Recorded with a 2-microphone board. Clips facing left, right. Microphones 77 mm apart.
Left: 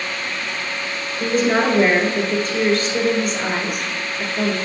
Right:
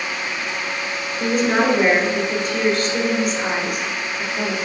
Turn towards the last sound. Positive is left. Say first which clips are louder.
# even
turn(degrees=-5)  # may be behind; listen again after turning